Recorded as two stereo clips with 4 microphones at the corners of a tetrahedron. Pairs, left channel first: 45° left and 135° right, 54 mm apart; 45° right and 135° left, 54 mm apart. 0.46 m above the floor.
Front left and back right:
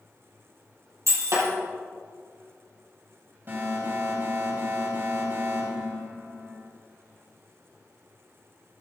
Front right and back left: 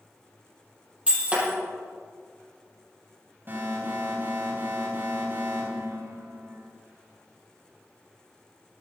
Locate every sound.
1.1 s breaking glass: 160° right, 5.5 m
3.5 s an alarm: straight behind, 4.5 m